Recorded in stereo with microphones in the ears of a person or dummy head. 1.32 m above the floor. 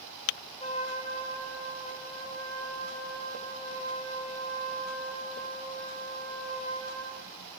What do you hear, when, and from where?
0.6 s a trumpet: 40° left (ahead or behind), 1.0 m